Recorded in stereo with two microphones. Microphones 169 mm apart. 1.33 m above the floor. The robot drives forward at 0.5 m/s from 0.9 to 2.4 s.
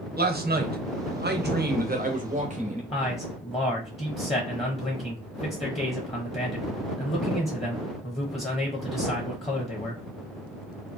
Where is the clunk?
No clunk in this recording.